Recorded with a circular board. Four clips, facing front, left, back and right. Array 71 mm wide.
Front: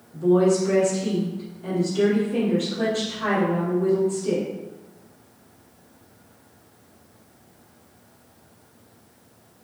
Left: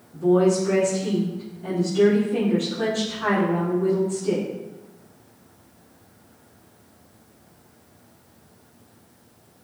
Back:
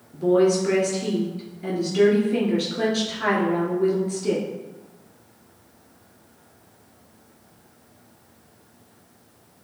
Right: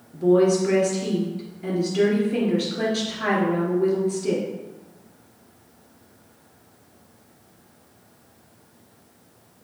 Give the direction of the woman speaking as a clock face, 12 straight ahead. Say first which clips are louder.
Right 1 dB, even; 5 o'clock.